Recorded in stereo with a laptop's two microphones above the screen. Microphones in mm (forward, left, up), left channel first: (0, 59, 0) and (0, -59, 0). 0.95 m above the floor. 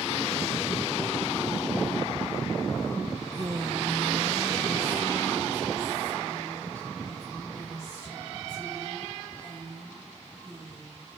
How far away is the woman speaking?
About 0.5 m.